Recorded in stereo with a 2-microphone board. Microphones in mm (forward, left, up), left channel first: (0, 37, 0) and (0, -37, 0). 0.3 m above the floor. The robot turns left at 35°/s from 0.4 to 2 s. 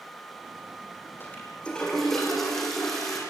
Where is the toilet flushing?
35° left (ahead or behind), 6.5 m; by 3.2 s 5° left (ahead or behind), 6.5 m.